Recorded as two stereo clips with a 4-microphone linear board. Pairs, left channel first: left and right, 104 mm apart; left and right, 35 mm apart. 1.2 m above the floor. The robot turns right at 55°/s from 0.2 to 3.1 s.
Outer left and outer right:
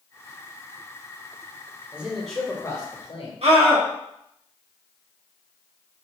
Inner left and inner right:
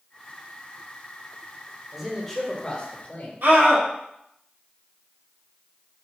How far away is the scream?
About 1.7 m.